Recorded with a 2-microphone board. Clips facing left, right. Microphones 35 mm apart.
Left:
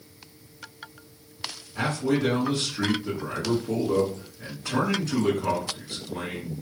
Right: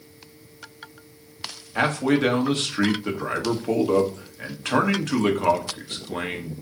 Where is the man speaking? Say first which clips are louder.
Right 4 dB; 60° right (ahead or behind), 1.5 m.